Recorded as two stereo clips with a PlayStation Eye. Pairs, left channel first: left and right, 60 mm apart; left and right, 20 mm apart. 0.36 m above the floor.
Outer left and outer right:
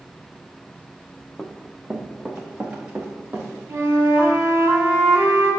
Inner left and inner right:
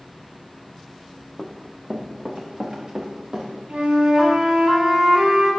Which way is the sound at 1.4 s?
5° left (ahead or behind).